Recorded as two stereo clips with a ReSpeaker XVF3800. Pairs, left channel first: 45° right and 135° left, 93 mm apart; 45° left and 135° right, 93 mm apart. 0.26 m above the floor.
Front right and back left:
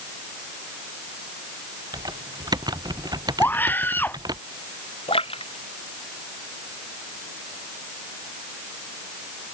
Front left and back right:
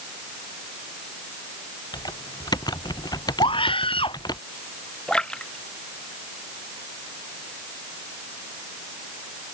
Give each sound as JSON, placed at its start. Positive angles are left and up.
{"t": 1.9, "sound": "typing on a keyboard", "azimuth_deg": 90}
{"t": 3.4, "sound": "a scream", "azimuth_deg": 25}
{"t": 5.1, "sound": "a splash", "azimuth_deg": -35}